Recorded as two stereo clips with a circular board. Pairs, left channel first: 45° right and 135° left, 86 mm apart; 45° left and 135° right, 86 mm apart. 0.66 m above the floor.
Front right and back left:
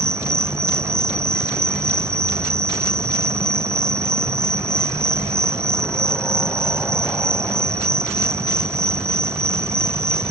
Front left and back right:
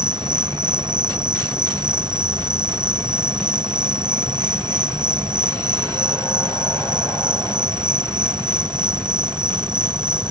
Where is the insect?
165° right.